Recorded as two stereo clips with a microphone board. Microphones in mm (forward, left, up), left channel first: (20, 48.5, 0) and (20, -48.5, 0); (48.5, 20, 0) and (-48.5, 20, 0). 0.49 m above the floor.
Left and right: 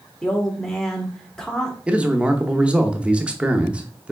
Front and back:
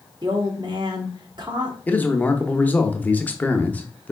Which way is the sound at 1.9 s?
35° right.